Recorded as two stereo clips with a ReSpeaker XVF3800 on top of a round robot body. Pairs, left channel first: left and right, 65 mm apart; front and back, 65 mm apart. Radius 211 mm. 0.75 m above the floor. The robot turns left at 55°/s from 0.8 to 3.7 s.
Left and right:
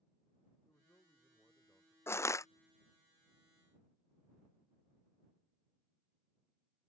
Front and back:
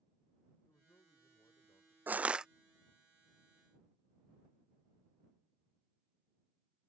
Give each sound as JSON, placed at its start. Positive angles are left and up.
{"t": 0.7, "sound": "a man speaking", "azimuth_deg": 45}
{"t": 2.1, "sound": "crushing", "azimuth_deg": 130}